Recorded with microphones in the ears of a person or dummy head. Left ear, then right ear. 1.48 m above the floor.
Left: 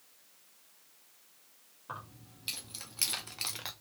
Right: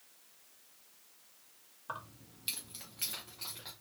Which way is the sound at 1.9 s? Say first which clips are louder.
Right 1 dB; 20° right (ahead or behind).